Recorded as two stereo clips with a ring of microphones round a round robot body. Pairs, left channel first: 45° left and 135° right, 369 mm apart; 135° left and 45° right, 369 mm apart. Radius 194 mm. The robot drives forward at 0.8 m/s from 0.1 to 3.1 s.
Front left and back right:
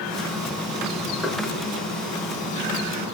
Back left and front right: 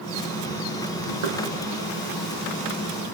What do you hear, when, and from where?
1.2 s knocking: 40° right, 5 m; by 1.4 s 45° right, 5 m